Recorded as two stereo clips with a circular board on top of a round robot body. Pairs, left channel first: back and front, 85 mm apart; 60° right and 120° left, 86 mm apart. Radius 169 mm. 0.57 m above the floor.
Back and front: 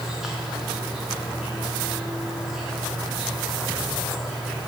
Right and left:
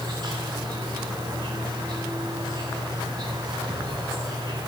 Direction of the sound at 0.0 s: 85° left.